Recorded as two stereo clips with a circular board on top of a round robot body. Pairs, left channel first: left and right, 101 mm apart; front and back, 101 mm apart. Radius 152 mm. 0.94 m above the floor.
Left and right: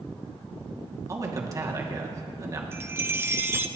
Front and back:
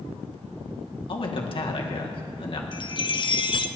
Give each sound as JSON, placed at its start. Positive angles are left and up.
{"t": 1.1, "sound": "a man speaking", "azimuth_deg": -35, "distance_m": 2.0}
{"t": 2.7, "sound": "a chime", "azimuth_deg": -25, "distance_m": 0.9}